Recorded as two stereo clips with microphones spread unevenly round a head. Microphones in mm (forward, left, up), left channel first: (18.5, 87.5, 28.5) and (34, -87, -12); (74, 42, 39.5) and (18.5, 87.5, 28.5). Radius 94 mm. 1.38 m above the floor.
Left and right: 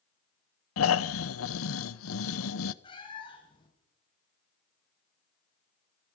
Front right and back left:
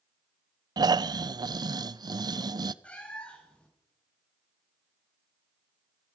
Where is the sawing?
I don't hear sawing.